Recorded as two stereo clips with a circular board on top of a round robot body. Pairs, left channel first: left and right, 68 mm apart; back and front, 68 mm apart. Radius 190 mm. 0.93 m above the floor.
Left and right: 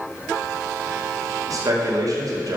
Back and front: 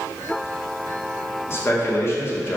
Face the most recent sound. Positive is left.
turn(degrees=-125)